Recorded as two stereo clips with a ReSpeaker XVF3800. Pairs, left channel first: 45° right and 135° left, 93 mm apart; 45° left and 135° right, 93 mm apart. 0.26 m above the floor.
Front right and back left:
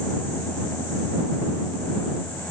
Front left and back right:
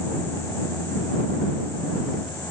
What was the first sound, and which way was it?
Only background noise.